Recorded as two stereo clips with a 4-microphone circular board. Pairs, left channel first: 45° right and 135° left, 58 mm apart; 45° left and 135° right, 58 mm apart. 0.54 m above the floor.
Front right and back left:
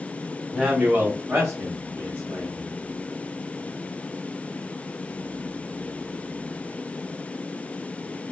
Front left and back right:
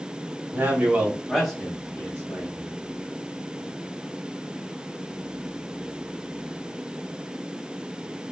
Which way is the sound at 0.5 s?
155° right.